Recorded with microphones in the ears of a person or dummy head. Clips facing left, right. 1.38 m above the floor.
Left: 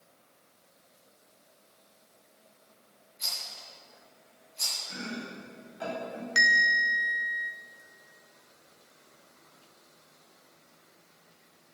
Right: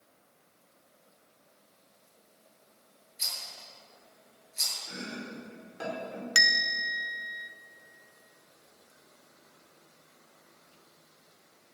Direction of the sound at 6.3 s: 45° right (ahead or behind).